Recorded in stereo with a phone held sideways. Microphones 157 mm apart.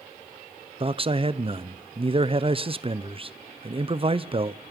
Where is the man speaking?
35° right (ahead or behind), 0.7 m.